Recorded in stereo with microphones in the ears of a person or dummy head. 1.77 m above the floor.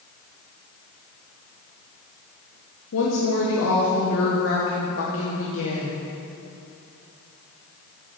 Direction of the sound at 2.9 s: 65° left (ahead or behind).